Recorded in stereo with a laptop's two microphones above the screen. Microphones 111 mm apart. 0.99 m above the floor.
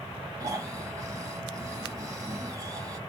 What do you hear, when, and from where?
0.4 s snoring: 30° right (ahead or behind), 0.9 m